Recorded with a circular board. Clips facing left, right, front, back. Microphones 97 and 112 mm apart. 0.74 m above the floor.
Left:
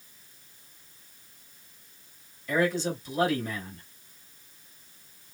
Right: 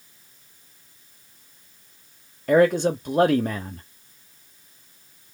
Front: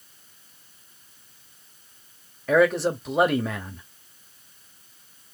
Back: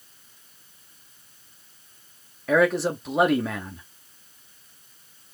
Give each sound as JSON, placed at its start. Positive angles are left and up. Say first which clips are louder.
{"t": 2.5, "sound": "a man speaking", "louder": "right 9 dB, front 1 dB", "azimuth_deg": -90, "distance_m": 1.0}